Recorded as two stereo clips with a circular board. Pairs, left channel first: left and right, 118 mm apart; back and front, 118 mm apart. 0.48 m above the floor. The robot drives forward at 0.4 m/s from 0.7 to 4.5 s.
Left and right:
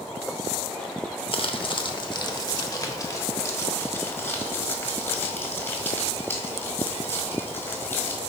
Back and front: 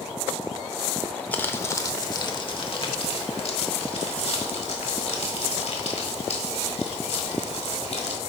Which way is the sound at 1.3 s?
110° left.